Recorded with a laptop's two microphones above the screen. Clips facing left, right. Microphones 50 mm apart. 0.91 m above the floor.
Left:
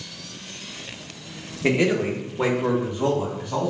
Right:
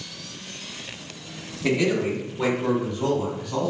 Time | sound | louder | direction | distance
1.6 | a man speaking | left 2 dB | 30° left (ahead or behind) | 0.8 m